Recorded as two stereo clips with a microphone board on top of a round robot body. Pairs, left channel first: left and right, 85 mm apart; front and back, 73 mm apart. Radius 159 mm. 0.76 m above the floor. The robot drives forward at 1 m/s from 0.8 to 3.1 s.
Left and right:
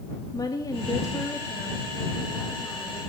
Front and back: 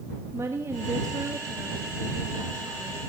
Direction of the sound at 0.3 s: 130° left.